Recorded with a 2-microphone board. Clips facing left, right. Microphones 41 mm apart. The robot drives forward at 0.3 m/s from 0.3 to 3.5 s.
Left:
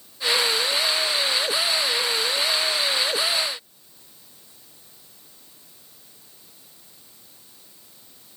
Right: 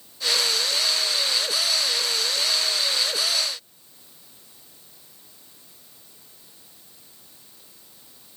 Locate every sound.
Only background noise.